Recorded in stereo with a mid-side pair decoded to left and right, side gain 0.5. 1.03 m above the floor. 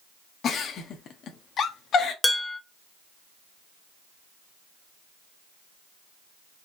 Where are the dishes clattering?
10° left, 0.5 m.